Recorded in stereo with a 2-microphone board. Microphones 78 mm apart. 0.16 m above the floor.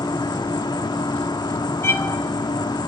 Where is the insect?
65° left (ahead or behind), 0.9 m.